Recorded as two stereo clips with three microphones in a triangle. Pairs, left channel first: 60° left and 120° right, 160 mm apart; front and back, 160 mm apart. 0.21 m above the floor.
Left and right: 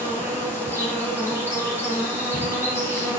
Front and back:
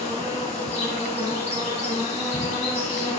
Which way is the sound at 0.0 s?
45° right.